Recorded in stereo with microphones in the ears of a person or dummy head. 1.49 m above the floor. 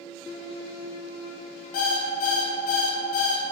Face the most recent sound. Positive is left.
turn(degrees=45)  # may be behind; listen again after turning